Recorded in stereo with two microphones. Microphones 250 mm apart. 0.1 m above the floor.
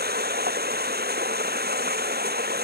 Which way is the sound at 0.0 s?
40° right (ahead or behind).